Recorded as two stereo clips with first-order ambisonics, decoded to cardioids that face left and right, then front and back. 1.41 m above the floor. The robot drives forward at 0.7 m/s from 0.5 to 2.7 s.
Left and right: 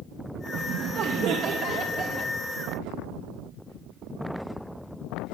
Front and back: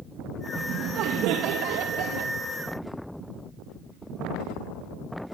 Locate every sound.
0.6 s laughter: 130° right, 1.5 m; by 2.3 s 155° right, 2.5 m